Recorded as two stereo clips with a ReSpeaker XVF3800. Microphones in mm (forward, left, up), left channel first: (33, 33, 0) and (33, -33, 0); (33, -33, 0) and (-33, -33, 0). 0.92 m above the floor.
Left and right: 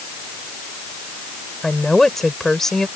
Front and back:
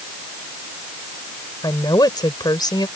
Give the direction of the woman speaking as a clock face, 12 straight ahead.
12 o'clock.